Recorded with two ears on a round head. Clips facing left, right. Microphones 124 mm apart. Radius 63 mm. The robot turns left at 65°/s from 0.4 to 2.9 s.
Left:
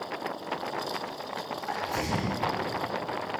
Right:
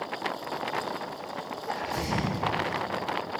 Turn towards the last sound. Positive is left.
turn(degrees=35)